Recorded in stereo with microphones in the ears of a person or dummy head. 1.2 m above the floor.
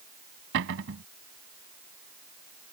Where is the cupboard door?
70° right (ahead or behind).